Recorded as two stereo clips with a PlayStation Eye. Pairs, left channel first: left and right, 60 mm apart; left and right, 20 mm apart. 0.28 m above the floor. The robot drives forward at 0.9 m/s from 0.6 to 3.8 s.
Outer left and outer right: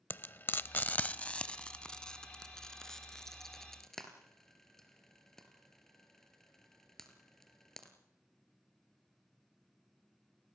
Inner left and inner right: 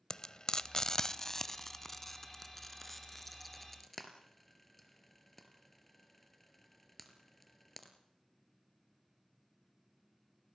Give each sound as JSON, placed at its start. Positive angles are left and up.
{"t": 0.1, "sound": "frying", "side_deg": 35, "distance_m": 0.6}